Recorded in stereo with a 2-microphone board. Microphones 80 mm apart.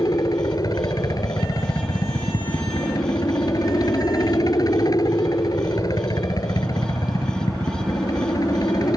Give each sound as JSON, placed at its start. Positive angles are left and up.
{"t": 0.0, "sound": "a helicopter", "side_deg": 50}